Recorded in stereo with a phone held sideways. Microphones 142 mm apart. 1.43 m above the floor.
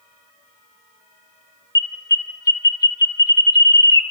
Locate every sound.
1.8 s an alarm: 25° left (ahead or behind), 1.1 m